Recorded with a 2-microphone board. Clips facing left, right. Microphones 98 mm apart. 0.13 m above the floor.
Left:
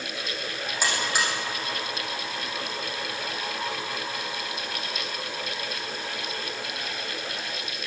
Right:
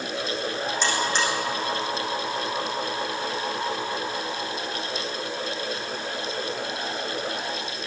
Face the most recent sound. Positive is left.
turn(degrees=10)  # may be behind; listen again after turning